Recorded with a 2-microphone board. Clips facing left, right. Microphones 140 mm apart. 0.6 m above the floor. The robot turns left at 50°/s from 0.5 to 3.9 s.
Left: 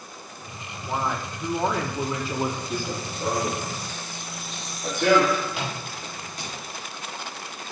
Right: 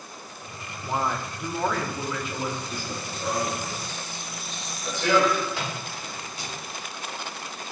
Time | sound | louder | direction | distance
0.8 | a man speaking | even | 165° right | 0.7 m
2.7 | running footsteps | left 4 dB | 55° left (ahead or behind) | 1.1 m
5.5 | a microwave | even | 20° left (ahead or behind) | 0.9 m